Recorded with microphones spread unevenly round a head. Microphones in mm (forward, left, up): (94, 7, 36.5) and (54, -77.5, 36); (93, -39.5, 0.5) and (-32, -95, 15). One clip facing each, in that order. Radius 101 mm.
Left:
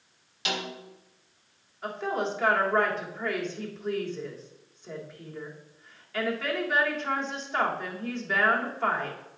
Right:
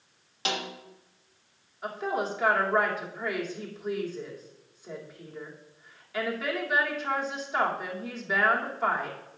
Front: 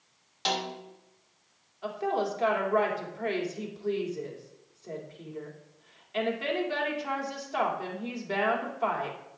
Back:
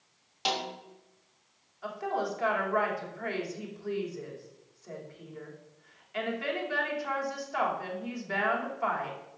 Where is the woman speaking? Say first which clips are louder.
Even, front 3 dB; 35° right, 3 m.